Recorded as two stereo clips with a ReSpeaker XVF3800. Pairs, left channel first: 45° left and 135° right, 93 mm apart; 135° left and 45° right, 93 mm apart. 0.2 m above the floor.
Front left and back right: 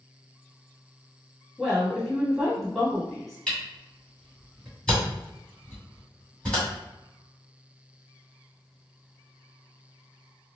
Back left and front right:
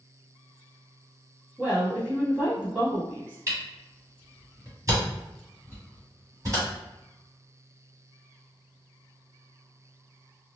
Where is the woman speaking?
45° right, 1.4 m.